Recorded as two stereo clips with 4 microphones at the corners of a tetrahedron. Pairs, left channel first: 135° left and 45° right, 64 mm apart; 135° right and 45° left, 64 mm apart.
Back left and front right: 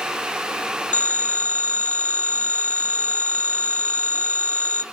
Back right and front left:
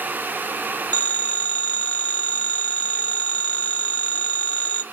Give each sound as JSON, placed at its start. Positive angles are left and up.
{"t": 0.9, "sound": "a phone ringing", "azimuth_deg": 175, "distance_m": 0.8}